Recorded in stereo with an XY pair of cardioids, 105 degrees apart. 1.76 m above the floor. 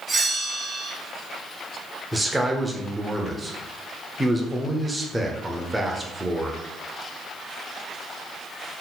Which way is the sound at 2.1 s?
10° right.